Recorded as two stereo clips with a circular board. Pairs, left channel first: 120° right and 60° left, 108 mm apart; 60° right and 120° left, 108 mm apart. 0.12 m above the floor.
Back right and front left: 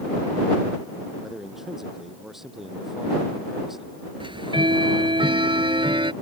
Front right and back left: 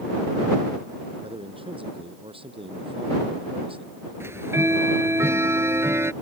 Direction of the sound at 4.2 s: 60° left.